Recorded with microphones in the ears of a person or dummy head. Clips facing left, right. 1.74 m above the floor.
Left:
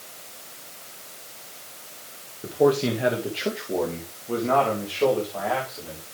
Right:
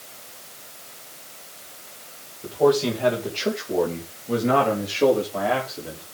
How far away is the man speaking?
About 2.5 m.